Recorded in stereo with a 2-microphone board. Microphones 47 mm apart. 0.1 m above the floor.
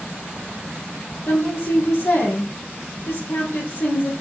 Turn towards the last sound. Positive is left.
turn(degrees=70)  # may be behind; listen again after turning